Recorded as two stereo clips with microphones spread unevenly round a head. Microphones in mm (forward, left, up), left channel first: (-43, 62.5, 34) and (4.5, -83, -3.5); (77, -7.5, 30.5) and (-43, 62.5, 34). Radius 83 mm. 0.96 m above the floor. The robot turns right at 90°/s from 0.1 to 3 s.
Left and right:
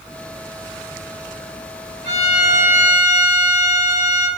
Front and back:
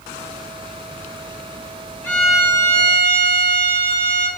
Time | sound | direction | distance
2.0 | a violin | 45° left | 1.7 m